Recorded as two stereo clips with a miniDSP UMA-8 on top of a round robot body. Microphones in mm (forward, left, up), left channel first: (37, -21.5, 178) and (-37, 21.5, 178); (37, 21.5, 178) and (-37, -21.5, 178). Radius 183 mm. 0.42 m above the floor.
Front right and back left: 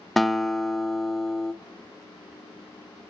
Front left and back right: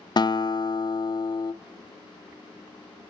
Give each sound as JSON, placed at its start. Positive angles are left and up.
{"t": 0.2, "sound": "a guitar", "azimuth_deg": 60, "distance_m": 0.8}